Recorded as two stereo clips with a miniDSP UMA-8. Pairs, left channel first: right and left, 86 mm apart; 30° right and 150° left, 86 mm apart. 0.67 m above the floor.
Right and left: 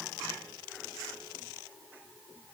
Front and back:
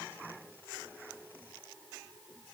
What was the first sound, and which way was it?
Only background noise.